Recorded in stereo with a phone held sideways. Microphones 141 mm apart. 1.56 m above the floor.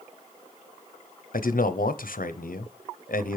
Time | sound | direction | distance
1.3 | a man speaking | 80° left | 0.7 m